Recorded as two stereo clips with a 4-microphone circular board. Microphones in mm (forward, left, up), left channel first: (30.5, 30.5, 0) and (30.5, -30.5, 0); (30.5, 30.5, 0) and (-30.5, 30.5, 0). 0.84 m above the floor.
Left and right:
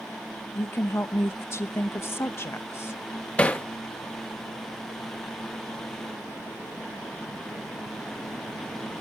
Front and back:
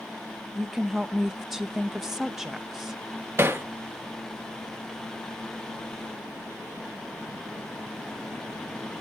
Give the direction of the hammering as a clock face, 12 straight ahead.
7 o'clock.